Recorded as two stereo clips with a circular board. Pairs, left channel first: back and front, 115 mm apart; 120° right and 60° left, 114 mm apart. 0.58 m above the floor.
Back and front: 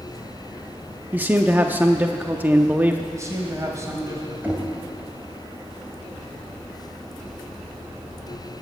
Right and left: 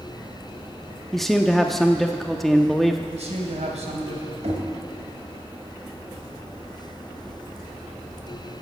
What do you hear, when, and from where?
1.1 s a man speaking: 40° right, 0.6 m
3.1 s a man speaking: 60° left, 2.5 m
4.4 s knocking: 75° left, 2.5 m